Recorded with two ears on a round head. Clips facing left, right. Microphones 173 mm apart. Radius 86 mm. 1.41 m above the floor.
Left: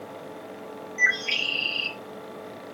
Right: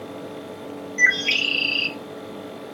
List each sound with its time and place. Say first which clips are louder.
1.0 s a bird: right 5 dB; 35° right (ahead or behind), 1.5 m